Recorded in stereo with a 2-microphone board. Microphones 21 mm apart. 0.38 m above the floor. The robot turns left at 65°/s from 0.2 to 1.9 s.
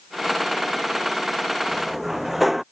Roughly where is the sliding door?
Right.